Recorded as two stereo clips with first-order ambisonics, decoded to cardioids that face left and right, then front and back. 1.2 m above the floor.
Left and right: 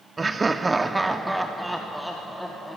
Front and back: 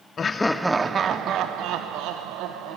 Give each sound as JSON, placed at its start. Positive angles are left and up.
{"t": 0.2, "sound": "laughter", "azimuth_deg": -35, "distance_m": 0.6}